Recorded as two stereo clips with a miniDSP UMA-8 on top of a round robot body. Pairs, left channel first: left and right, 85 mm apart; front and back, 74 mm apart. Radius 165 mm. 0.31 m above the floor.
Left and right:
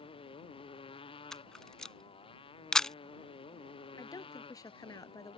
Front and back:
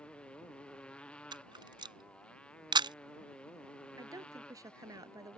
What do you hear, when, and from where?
0.0 s a motorcycle: 75° left
1.3 s a camera shutter: 175° left
4.0 s a woman speaking: 140° left